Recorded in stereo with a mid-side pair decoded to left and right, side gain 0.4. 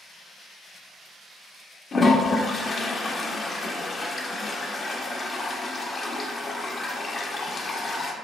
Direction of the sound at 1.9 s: 40° left.